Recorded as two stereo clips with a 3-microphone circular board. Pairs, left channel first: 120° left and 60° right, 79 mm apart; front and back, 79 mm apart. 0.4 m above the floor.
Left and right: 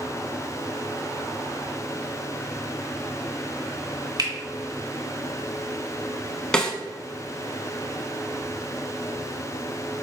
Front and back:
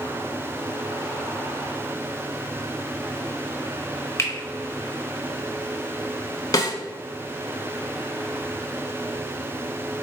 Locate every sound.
4.2 s a finger snap: 50° right, 1.0 m
6.5 s a snare drum: 40° left, 0.6 m